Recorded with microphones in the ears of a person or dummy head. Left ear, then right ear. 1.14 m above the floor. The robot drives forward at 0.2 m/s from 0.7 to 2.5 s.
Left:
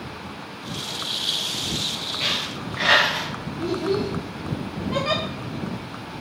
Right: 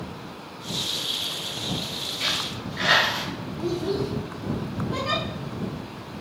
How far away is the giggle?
About 1.1 m.